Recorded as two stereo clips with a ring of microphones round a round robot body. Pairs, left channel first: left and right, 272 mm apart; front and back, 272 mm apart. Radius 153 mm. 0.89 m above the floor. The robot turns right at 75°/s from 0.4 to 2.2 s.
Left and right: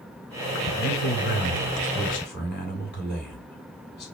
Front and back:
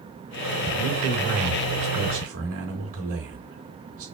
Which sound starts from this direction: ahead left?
A man speaking, at 0.8 s.